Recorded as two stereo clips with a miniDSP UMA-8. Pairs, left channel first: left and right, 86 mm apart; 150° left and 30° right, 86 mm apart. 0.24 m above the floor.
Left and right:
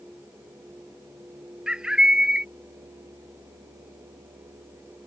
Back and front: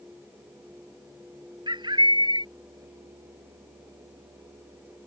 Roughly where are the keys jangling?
I don't hear keys jangling.